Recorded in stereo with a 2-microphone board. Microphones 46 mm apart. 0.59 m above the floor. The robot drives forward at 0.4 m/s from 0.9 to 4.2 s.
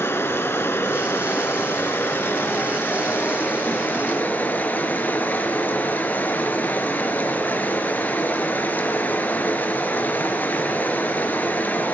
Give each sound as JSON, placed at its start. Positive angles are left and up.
{"t": 0.0, "sound": "running water", "side_deg": 60, "distance_m": 3.0}